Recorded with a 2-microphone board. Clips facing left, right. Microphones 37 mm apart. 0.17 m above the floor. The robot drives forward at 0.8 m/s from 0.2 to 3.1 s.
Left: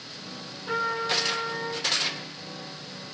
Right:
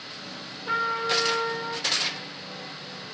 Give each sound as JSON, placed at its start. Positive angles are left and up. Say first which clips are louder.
{"t": 0.7, "sound": "a trumpet", "louder": "right 2 dB", "side_deg": -20, "distance_m": 4.0}